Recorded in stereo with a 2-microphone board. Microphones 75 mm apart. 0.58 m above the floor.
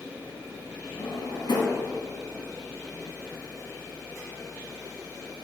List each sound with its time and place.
1.0 s a drawer: 85° left, 1.7 m